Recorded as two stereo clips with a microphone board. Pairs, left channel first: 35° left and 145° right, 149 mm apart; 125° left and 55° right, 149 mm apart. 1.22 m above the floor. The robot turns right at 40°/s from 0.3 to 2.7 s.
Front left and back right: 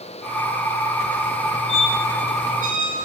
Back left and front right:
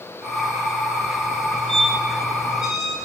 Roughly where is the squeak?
Ahead.